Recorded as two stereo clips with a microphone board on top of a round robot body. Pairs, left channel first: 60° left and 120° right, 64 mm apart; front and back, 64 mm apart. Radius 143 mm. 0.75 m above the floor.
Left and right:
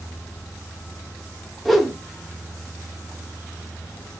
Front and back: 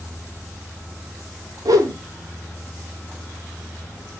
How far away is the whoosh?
About 0.8 m.